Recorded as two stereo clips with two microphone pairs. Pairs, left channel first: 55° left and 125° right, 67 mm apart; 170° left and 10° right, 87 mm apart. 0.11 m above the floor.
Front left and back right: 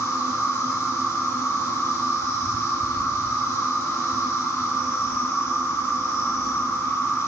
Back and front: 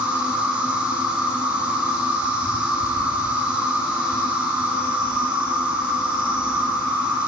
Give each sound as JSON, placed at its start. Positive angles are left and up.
{"t": 0.0, "sound": "an insect", "azimuth_deg": 60, "distance_m": 1.2}